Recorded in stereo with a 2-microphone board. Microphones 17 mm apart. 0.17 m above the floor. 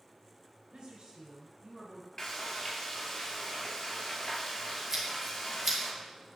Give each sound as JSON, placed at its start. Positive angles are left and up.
{"t": 0.7, "sound": "a woman speaking", "side_deg": -55, "distance_m": 1.9}
{"t": 2.2, "sound": "frying", "side_deg": 35, "distance_m": 2.5}
{"t": 4.9, "sound": "scissors", "side_deg": -20, "distance_m": 2.5}